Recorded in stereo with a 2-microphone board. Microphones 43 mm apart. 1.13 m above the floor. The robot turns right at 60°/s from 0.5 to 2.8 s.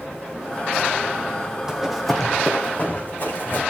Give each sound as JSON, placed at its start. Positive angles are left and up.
{"t": 1.7, "sound": "running footsteps", "side_deg": -15, "distance_m": 2.0}